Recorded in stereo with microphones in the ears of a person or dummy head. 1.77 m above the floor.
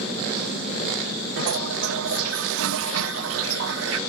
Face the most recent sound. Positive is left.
turn(degrees=-75)  # may be behind; listen again after turning